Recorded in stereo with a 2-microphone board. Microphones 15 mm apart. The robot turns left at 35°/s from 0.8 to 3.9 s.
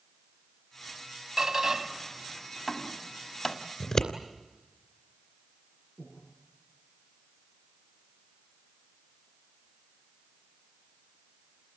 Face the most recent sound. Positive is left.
turn(degrees=55)  # may be behind; listen again after turning